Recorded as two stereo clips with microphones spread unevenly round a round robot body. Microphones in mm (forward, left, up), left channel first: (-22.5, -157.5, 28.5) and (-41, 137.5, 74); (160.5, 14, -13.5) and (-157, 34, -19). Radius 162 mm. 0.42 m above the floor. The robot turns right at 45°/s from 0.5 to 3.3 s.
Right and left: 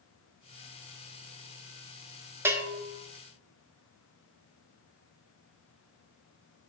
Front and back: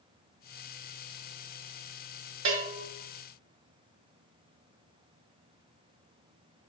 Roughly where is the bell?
Behind.